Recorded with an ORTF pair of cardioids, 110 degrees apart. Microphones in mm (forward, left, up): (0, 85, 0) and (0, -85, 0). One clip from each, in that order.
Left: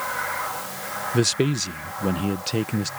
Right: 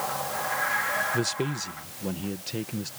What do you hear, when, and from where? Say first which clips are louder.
1.1 s a man speaking: left 6 dB; 40° left